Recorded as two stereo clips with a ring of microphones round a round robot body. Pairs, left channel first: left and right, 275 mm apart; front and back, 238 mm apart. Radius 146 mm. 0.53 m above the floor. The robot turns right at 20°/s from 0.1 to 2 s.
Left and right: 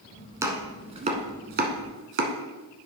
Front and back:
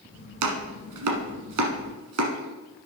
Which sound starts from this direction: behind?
Chopping, at 0.4 s.